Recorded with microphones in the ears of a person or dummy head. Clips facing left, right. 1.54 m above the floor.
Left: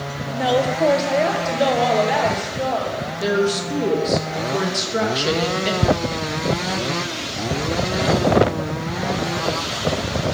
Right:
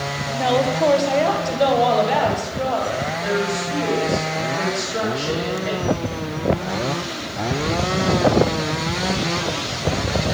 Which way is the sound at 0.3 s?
5° left (ahead or behind).